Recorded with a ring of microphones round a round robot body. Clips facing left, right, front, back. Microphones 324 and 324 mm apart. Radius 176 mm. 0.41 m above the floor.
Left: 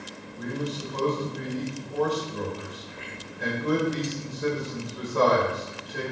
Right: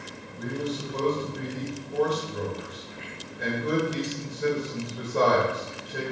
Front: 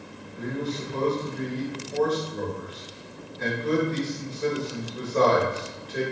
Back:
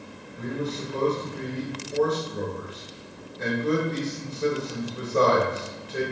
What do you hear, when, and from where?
0.4 s a man speaking: 105° right, 1.9 m